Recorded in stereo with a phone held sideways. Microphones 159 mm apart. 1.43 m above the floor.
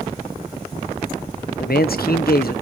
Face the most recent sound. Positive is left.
turn(degrees=75)  # may be behind; listen again after turning